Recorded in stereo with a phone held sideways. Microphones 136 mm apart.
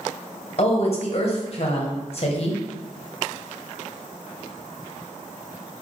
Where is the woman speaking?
45° left (ahead or behind), 1.0 m.